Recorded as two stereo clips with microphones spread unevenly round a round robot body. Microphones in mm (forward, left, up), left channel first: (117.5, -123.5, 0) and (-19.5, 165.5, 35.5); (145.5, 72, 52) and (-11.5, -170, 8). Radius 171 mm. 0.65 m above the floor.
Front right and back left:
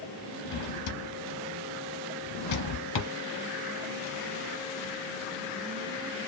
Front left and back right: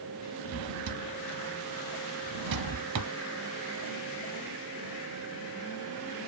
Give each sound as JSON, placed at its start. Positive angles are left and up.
{"t": 0.5, "sound": "a drawer", "azimuth_deg": -90, "distance_m": 0.9}